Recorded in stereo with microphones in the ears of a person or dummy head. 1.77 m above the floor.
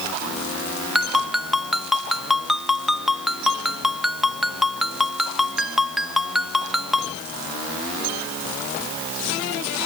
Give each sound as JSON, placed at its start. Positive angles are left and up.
{"t": 0.9, "sound": "a ringtone", "side_deg": 0}